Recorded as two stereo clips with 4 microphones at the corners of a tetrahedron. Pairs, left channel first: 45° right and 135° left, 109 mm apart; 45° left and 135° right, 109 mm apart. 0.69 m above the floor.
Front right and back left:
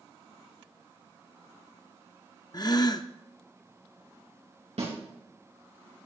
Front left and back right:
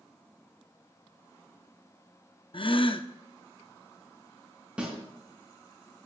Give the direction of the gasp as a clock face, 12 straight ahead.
12 o'clock.